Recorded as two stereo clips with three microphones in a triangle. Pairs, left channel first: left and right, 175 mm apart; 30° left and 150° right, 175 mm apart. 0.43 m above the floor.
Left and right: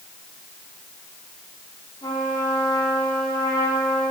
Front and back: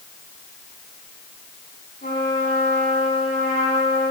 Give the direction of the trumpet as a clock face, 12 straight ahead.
11 o'clock.